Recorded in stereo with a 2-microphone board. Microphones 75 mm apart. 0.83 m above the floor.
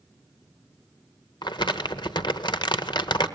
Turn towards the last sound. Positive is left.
turn(degrees=80)